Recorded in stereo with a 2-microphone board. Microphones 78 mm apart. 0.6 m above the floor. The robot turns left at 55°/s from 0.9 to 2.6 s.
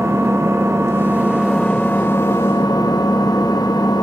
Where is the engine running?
145° right, 0.8 m; by 4.0 s 120° left, 0.8 m.